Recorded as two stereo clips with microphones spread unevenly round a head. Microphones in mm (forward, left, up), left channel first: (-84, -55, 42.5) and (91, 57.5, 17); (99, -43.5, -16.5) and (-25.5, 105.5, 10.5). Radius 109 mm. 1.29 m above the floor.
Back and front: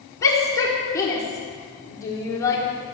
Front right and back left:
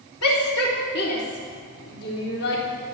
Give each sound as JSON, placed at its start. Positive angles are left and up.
{"t": 0.2, "sound": "a shout", "azimuth_deg": -70, "distance_m": 4.0}